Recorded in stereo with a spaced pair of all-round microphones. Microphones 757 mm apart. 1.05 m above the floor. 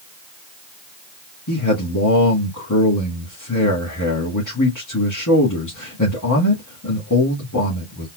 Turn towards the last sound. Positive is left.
turn(degrees=25)  # may be behind; listen again after turning